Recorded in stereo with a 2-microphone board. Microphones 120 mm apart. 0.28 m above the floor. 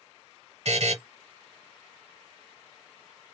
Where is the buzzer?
65° right (ahead or behind), 1.0 m.